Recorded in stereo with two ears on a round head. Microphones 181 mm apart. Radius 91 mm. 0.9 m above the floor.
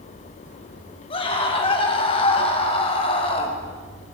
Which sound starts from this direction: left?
A scream, at 1.1 s.